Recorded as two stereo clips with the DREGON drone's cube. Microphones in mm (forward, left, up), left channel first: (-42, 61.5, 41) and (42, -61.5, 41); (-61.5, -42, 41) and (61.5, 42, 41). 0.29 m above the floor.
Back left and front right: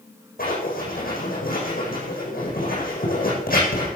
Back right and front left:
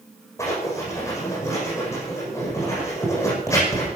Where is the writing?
140° left, 8.5 m.